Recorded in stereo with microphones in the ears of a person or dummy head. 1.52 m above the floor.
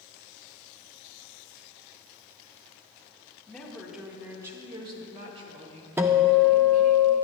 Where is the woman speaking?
5° left (ahead or behind), 1.8 m; by 7.0 s 55° right (ahead or behind), 3 m.